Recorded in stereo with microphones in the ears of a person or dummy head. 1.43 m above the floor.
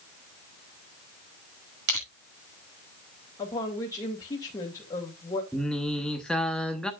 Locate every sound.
1.9 s crushing: 60° right (ahead or behind), 5.5 m
3.4 s a woman speaking: 20° left (ahead or behind), 2.5 m
5.5 s singing: centre (ahead or behind), 1.1 m